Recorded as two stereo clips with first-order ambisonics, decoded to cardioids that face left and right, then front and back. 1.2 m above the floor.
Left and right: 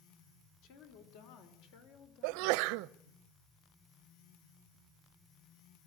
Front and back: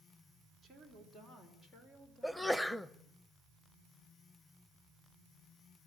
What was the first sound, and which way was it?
A woman speaking, 85° left.